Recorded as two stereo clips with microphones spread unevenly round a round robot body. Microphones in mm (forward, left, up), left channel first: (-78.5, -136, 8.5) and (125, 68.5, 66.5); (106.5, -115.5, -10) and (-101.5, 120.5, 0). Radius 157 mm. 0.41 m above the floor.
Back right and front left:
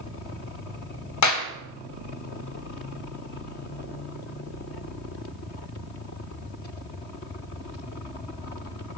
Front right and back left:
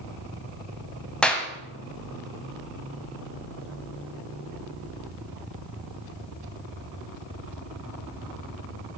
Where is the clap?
135° right, 2 m.